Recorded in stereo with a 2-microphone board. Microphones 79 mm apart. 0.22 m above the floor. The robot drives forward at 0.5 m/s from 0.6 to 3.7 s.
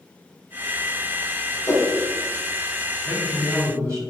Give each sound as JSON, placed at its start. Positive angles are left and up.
{"t": 1.7, "sound": "a whoosh", "side_deg": 45, "distance_m": 1.2}
{"t": 3.0, "sound": "a man speaking", "side_deg": -40, "distance_m": 1.2}